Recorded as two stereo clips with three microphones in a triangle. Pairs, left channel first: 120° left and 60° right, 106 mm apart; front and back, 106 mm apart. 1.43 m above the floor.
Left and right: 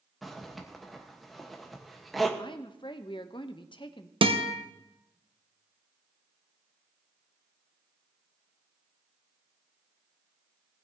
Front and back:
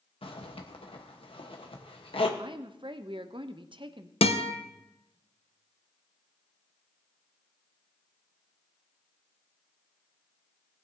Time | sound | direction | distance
0.2 | a zipper | 30° left | 1.2 m
2.4 | a woman speaking | 150° left | 0.7 m
4.2 | a guitar | 25° right | 0.9 m